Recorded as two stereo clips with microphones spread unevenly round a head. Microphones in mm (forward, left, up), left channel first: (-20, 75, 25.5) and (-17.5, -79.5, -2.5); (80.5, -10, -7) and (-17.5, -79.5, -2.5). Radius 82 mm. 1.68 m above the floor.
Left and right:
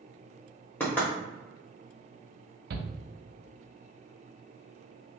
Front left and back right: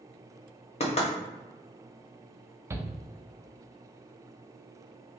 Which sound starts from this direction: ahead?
Knocking, at 0.8 s.